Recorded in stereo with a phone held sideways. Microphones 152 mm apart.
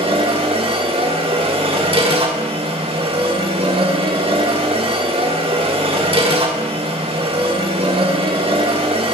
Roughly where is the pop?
I don't hear a pop.